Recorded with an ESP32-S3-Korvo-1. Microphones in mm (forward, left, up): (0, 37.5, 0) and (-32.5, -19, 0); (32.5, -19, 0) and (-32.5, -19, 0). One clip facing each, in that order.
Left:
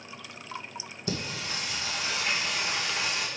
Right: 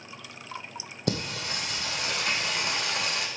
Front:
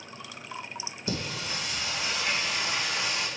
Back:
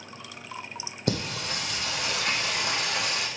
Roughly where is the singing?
Behind right.